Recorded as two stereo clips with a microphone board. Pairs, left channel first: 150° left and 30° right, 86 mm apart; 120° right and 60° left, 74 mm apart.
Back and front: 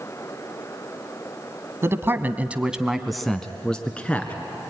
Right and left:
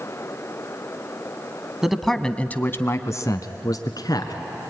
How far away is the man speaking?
About 1.1 m.